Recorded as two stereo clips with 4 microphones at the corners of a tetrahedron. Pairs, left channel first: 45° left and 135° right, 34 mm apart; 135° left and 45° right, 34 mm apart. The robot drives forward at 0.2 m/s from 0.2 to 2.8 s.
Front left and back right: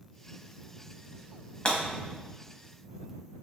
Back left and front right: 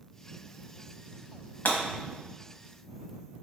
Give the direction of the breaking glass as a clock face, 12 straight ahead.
8 o'clock.